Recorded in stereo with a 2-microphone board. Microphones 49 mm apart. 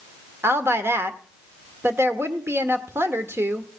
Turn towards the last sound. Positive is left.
turn(degrees=-50)  # may be behind; listen again after turning